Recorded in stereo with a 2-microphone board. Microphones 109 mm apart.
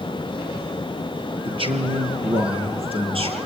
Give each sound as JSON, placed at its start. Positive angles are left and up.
{"t": 1.4, "sound": "a man speaking", "side_deg": -50, "distance_m": 5.0}